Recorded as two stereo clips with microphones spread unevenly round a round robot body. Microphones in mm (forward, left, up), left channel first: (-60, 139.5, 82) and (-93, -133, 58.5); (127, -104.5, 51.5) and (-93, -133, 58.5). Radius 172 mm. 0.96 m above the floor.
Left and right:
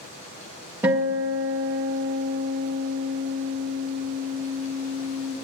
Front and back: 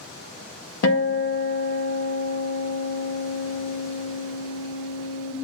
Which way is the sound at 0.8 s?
10° right.